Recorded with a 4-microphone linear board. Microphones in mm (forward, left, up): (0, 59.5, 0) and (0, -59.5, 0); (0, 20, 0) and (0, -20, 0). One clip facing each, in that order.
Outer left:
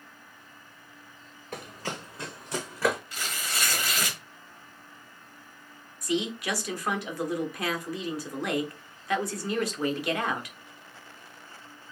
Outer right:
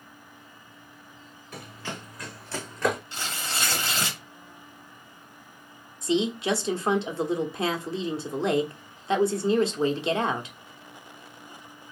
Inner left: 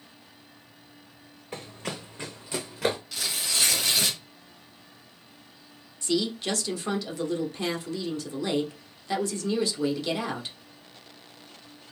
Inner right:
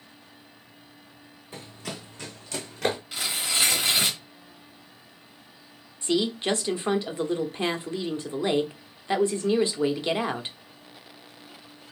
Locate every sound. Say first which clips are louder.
1.5 s running footsteps: outer left 2 dB, inner left 2 dB; 50° left (ahead or behind), 1.9 m; by 3.0 s centre (ahead or behind), 1.6 m
3.1 s tearing paper: outer right 2 dB, inner right 2 dB; 30° right (ahead or behind), 1.3 m
6.0 s a woman speaking: outer right 4 dB, inner right 2 dB; 25° right (ahead or behind), 0.9 m